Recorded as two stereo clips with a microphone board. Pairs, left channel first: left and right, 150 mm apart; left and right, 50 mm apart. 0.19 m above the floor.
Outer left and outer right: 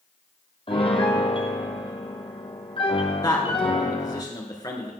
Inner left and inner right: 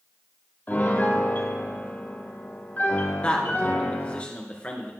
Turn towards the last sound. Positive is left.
turn(degrees=25)  # may be behind; listen again after turning